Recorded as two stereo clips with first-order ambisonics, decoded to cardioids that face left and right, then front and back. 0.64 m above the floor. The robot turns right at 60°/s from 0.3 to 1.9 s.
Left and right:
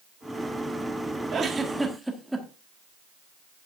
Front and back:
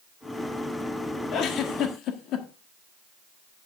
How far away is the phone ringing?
No phone ringing in this recording.